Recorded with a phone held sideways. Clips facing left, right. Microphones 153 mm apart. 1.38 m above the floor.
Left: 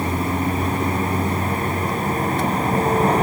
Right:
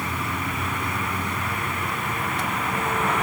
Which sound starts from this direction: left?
A vehicle, at 0.0 s.